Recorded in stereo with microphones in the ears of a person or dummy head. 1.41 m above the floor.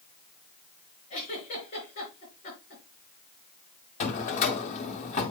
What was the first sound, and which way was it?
A giggle, 40° left (ahead or behind).